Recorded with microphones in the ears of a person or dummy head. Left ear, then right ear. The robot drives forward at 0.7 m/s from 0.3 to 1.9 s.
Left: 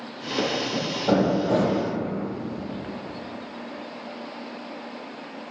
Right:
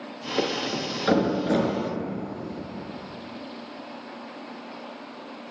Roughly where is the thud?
Right.